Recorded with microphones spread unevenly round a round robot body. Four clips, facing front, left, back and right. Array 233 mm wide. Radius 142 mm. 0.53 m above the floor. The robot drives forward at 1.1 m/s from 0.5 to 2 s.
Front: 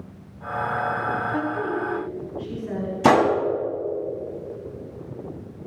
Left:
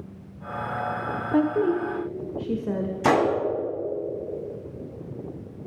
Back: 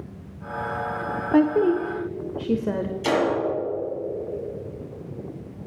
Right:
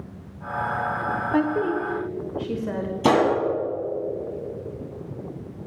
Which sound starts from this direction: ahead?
A gunshot, at 3.0 s.